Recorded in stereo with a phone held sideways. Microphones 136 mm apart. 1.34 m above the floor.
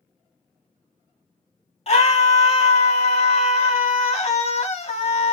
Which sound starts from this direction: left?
A scream, at 1.9 s.